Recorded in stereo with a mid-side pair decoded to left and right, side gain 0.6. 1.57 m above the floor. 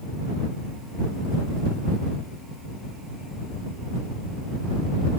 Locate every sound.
Only background noise.